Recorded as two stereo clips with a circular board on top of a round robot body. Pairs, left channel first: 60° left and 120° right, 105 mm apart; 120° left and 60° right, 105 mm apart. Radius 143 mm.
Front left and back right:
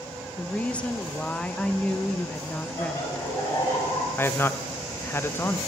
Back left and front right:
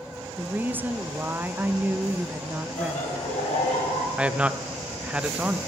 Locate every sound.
0.4 s a woman speaking: 10° right, 0.6 m
2.8 s laughter: 125° left, 5.5 m
4.2 s a man speaking: 10° left, 0.7 m